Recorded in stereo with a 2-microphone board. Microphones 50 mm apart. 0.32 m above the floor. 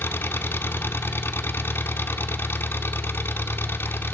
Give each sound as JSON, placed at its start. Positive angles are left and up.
{"t": 0.0, "sound": "an engine running", "side_deg": 50, "distance_m": 0.9}